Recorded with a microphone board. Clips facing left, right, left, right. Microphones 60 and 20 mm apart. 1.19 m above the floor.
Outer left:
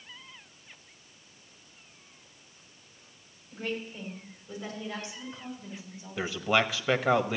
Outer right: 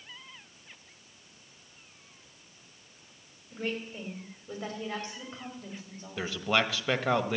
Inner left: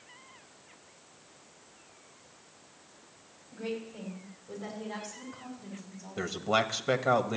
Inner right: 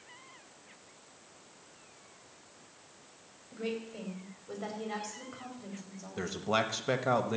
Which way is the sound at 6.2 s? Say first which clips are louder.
Outer left 2 dB, inner left 3 dB; 5° left (ahead or behind).